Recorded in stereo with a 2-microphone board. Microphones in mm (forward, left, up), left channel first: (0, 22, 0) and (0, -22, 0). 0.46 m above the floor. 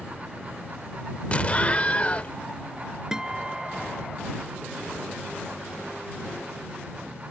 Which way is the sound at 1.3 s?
30° left (ahead or behind).